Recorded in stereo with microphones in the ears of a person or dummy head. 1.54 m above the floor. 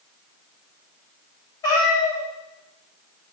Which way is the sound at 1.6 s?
15° left (ahead or behind).